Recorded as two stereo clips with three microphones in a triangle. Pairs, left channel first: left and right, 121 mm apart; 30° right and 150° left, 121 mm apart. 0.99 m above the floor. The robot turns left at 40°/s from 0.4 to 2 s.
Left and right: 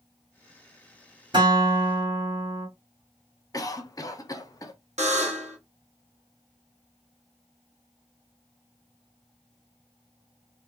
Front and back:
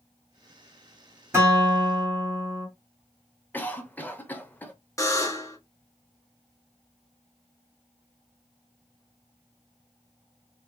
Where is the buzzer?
95° right, 0.7 m.